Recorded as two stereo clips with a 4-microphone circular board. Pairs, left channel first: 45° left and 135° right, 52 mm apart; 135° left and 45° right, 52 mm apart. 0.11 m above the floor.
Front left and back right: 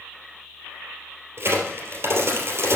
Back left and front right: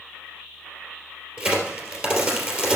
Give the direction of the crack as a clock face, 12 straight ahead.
4 o'clock.